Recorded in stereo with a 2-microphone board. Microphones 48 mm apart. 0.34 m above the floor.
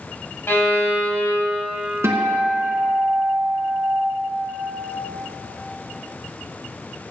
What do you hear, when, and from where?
0.5 s a violin: 60° left (ahead or behind), 1.0 m
2.0 s a guitar: 85° right, 1.3 m